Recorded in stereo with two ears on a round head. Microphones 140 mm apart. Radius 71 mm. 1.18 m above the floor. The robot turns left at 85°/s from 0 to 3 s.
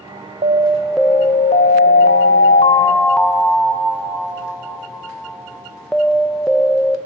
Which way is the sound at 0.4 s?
135° right.